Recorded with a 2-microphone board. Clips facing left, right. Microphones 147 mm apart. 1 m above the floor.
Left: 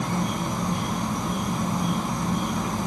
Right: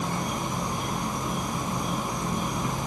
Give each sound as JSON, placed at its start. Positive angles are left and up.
{"t": 0.0, "sound": "an insect", "side_deg": 80, "distance_m": 3.5}